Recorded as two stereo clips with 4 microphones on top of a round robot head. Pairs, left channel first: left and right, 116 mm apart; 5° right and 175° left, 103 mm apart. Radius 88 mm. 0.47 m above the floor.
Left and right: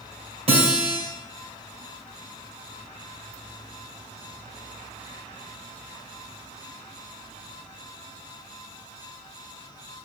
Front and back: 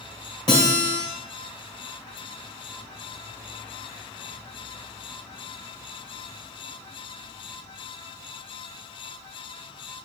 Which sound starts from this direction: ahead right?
A guitar, at 0.5 s.